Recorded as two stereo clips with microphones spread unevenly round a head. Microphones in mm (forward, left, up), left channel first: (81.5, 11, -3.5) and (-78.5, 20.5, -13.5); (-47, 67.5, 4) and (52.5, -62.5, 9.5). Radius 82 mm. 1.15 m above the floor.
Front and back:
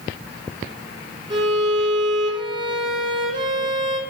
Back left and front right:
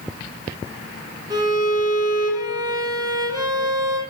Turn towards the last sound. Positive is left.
turn(degrees=-120)